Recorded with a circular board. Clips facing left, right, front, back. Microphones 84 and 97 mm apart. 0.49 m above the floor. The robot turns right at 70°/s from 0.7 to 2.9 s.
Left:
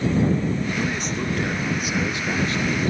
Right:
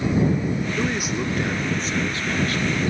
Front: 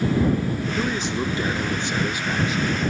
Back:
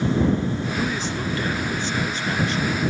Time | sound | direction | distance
0.8 | a man speaking | 45° right | ?